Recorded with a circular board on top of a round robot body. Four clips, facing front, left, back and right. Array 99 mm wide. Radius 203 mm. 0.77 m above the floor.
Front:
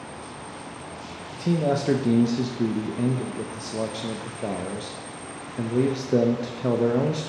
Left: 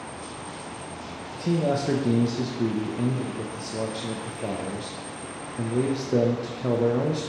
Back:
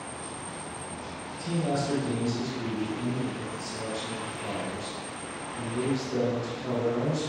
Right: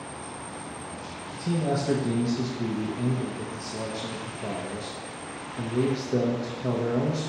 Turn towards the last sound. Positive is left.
turn(degrees=20)